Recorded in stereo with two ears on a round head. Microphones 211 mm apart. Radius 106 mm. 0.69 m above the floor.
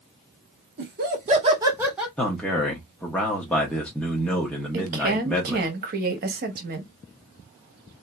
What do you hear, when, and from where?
0.8 s laughter: 50° right (ahead or behind), 1.7 m; by 2.1 s centre (ahead or behind), 1.9 m
2.2 s a man speaking: 5° left (ahead or behind), 1.1 m
4.7 s a woman speaking: 40° right (ahead or behind), 1.1 m